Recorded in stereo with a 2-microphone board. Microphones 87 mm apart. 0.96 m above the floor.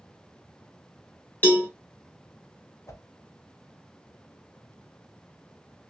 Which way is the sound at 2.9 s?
35° left (ahead or behind).